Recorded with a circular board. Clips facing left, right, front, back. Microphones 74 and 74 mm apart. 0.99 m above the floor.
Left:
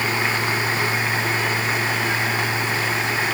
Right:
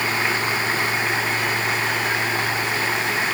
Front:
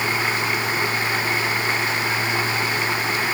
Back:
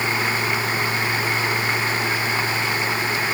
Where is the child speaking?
I don't hear a child speaking.